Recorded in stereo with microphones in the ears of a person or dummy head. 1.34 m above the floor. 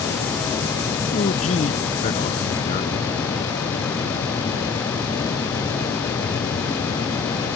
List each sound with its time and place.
1.1 s a man speaking: 40° left (ahead or behind)